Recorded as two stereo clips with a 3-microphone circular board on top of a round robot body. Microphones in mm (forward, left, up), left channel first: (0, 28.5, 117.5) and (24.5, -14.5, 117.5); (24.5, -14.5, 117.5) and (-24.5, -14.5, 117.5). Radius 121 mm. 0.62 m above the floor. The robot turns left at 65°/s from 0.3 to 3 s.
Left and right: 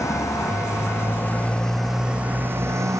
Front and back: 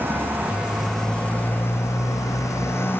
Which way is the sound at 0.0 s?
130° left.